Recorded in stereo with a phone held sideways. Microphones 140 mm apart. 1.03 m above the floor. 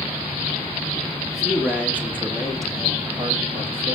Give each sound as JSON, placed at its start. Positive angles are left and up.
{"t": 1.3, "sound": "a man speaking", "side_deg": 0, "distance_m": 1.9}